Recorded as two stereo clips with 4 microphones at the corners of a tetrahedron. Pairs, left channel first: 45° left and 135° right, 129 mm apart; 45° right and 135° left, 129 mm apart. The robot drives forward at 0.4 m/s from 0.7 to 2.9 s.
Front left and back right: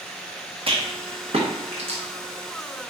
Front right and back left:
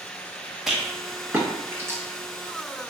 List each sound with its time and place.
0.7 s a rattle: 140° right, 0.7 m; by 2.0 s 160° right, 1.1 m